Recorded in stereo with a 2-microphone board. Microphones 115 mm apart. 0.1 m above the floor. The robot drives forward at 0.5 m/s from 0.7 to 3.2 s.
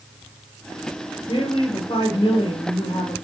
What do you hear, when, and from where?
1.3 s a woman speaking: 50° left (ahead or behind), 2 m; by 3.1 s 45° left (ahead or behind), 2.5 m